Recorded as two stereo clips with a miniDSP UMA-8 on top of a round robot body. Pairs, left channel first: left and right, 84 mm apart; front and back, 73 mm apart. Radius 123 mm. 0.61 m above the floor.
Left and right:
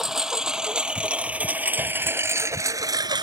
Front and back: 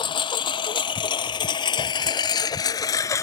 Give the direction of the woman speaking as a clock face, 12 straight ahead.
I don't hear a woman speaking.